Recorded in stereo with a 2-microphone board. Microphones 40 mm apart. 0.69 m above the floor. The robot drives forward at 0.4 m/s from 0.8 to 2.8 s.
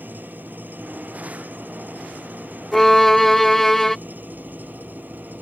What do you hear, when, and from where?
0.0 s an engine running: 55° right (ahead or behind); by 5.4 s 50° right (ahead or behind)
2.7 s a violin: 10° left (ahead or behind)